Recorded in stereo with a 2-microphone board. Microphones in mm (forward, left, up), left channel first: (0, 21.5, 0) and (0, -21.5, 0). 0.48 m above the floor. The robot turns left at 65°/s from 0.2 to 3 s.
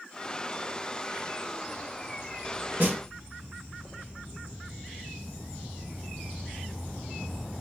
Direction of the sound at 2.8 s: 55° right (ahead or behind).